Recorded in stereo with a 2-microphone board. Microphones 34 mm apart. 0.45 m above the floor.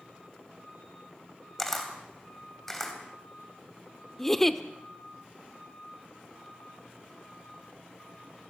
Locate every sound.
1.6 s a camera shutter: 10° left (ahead or behind), 3 m
4.2 s a giggle: 10° left (ahead or behind), 0.9 m